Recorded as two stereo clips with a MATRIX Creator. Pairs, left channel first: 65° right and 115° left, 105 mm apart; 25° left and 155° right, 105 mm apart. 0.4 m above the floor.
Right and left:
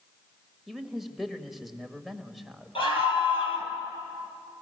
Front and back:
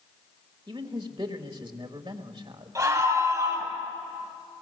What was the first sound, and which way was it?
A man speaking, 160° right.